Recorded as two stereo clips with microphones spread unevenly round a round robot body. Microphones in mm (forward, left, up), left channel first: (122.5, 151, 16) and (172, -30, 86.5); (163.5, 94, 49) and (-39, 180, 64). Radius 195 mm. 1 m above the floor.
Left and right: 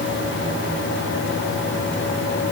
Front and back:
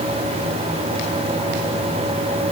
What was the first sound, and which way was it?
Only background noise.